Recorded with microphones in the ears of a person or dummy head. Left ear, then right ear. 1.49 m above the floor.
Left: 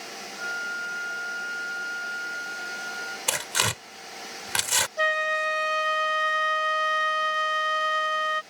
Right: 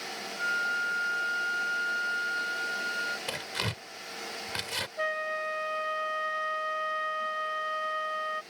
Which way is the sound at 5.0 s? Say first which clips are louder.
Left 6 dB; 80° left.